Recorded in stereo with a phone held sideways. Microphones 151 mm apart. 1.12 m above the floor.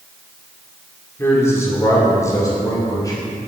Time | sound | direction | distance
1.2 | a man speaking | 15° left (ahead or behind) | 3 m